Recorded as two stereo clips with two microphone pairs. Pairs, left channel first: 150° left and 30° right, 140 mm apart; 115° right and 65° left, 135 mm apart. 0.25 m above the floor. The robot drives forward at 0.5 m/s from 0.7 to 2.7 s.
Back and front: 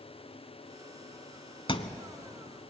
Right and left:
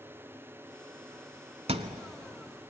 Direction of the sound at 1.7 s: 100° left.